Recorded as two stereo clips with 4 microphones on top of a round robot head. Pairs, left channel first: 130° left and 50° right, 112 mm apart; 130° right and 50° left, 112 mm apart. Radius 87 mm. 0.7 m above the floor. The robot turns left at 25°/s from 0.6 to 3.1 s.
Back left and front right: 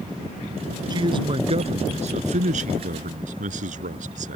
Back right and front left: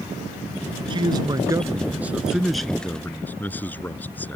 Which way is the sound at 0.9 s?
5° left.